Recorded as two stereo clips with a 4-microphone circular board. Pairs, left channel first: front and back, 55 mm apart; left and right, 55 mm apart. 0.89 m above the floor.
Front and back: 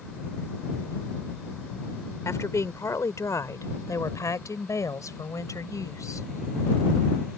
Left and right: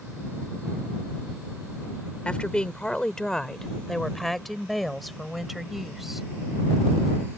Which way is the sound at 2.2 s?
20° left.